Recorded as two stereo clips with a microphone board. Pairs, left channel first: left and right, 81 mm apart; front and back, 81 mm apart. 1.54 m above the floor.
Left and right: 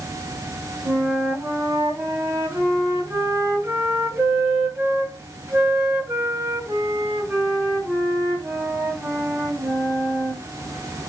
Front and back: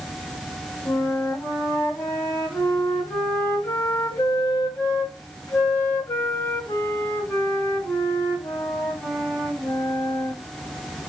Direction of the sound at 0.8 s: 30° right.